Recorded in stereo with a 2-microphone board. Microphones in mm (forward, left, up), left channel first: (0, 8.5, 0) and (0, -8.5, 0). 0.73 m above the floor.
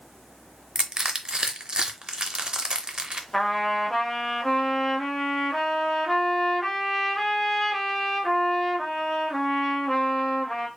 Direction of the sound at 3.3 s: 20° left (ahead or behind).